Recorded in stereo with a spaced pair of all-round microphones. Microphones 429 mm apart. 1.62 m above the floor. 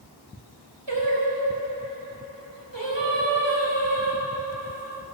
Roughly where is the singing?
Right.